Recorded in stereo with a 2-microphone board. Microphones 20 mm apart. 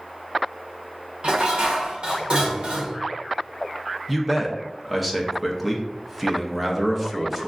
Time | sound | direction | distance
1.2 | dishes clattering | 70° right (ahead or behind) | 1.1 m
4.1 | a man speaking | 10° right (ahead or behind) | 0.6 m